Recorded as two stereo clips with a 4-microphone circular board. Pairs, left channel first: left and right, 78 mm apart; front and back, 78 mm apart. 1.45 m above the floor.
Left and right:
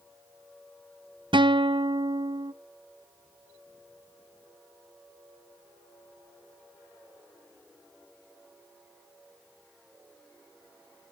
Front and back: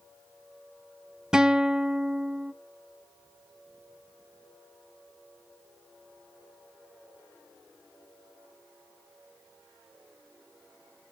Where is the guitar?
100° right, 0.6 m.